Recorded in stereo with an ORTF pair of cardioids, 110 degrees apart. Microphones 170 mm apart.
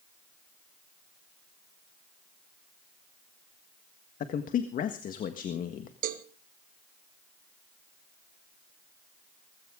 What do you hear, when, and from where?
4.2 s a man speaking: 55° left, 1.6 m
6.0 s a cowbell: 55° right, 1.3 m